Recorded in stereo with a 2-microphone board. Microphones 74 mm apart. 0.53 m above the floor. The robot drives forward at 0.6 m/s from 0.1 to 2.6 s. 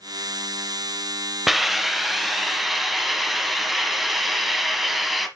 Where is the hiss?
Centre (ahead or behind), 0.6 m.